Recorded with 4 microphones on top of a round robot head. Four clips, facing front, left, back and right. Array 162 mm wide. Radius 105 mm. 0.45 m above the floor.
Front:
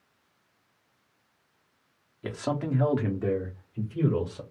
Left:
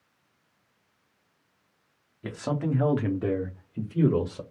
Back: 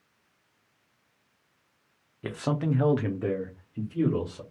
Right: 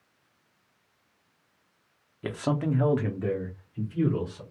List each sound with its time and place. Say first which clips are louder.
2.2 s a man speaking: right 1 dB, back 1 dB; 120° right, 1.0 m; by 4.4 s 85° left, 1.5 m